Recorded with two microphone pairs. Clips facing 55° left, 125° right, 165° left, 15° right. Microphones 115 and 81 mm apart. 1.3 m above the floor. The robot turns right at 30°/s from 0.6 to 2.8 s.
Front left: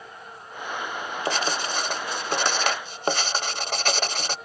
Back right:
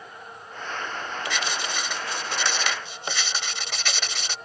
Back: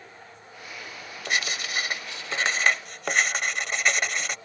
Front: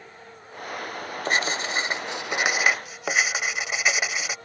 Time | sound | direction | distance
1.2 | writing | 20° left | ?